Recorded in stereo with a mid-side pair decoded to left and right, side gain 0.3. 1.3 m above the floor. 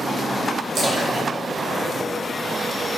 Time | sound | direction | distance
0.8 | a splash | 70° right | 1.9 m